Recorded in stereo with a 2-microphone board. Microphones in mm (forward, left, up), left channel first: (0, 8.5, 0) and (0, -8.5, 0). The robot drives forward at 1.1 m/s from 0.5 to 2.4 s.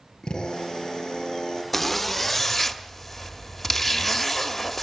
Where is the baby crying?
I don't hear a baby crying.